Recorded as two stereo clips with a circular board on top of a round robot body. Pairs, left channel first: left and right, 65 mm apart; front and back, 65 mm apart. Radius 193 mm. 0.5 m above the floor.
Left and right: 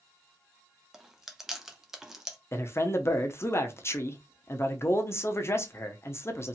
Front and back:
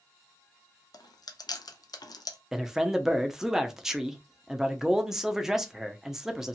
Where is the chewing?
5° right, 0.6 m.